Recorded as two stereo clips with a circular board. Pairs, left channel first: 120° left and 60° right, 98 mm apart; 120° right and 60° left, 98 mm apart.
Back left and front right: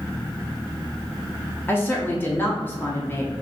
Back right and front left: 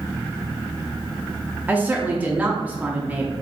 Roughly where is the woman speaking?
Left.